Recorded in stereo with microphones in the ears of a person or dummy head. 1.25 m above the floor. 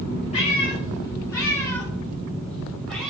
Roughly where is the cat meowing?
Left.